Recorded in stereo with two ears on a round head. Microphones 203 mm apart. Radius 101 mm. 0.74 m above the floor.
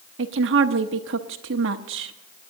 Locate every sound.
0.2 s a woman speaking: 60° right (ahead or behind), 0.9 m